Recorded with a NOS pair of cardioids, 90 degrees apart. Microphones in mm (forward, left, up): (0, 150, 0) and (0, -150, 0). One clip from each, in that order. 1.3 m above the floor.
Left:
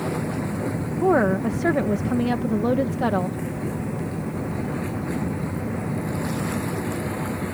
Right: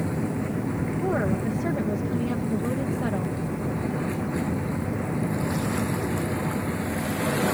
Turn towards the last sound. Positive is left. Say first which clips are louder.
# left 8 dB
turn(degrees=50)